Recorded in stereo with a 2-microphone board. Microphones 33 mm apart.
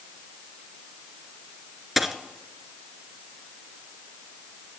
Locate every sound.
2.0 s a dropped coin: 5° right (ahead or behind), 0.8 m